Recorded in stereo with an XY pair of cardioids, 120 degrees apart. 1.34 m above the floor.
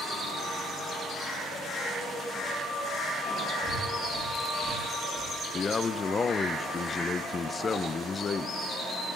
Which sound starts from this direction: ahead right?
Breathing, at 3.6 s.